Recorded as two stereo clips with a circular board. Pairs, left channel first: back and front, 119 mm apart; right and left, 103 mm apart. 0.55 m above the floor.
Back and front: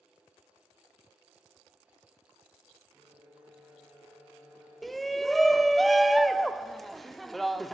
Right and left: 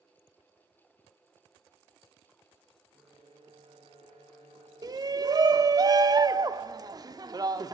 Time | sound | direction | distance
2.9 | a violin | 85° left | 6.5 m
4.8 | a shout | 90° left | 1.0 m